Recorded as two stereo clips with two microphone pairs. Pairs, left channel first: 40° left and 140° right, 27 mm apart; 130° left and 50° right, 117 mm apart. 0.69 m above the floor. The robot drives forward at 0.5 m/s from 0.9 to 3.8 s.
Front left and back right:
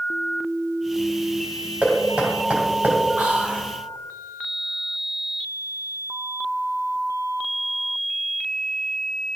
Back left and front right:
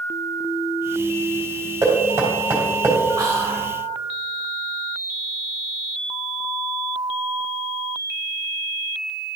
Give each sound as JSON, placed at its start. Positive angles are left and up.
{"t": 1.8, "sound": "knocking", "azimuth_deg": -110, "distance_m": 2.5}
{"t": 3.2, "sound": "whispering", "azimuth_deg": -110, "distance_m": 1.6}